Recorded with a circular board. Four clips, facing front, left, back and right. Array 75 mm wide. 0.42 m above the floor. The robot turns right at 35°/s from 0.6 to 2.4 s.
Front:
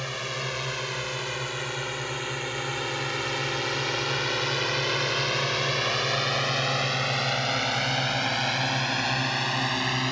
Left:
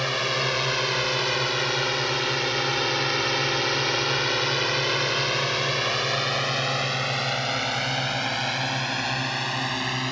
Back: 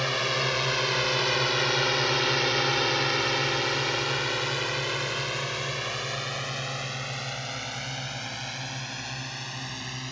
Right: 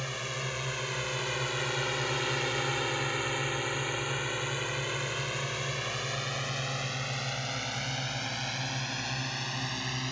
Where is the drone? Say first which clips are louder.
Left 11 dB, back 5 dB; 115° left; by 10.1 s 40° left.